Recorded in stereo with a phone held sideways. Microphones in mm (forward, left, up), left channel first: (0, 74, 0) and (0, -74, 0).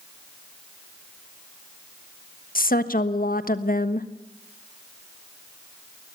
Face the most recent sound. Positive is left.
turn(degrees=75)  # may be behind; listen again after turning